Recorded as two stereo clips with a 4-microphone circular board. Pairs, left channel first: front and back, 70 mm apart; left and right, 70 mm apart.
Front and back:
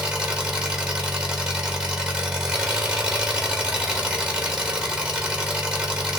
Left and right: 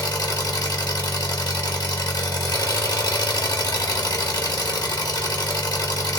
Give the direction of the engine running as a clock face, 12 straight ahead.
9 o'clock.